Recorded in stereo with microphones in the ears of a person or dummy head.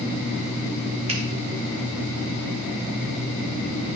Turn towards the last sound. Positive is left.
turn(degrees=-30)  # may be behind; listen again after turning